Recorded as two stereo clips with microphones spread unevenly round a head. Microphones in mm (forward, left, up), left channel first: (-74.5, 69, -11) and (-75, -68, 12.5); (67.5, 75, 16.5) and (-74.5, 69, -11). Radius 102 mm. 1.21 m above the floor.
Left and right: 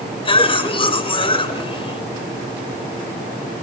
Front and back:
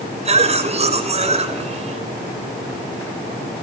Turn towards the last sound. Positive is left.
turn(degrees=140)